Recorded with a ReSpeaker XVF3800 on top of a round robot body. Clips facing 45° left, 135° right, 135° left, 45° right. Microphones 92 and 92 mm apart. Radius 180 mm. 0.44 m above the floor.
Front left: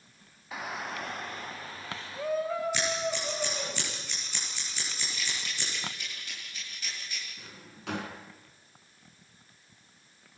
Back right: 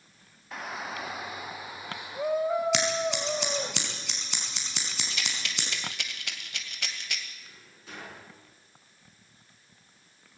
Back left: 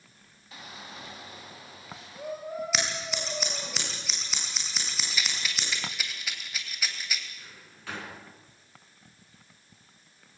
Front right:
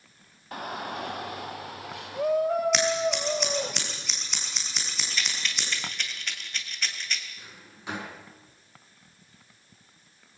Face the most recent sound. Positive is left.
turn(degrees=25)